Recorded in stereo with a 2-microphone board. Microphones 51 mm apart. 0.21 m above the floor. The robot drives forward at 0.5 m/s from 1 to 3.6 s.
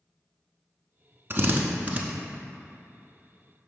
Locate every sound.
1.3 s a drill: 45° right (ahead or behind), 0.7 m; by 2.0 s 30° right (ahead or behind), 0.9 m